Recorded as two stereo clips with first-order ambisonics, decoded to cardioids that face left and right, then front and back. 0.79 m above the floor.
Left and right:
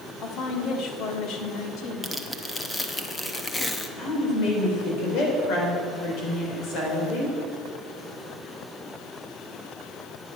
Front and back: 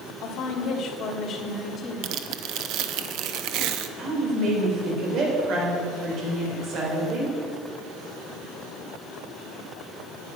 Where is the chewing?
No chewing in this recording.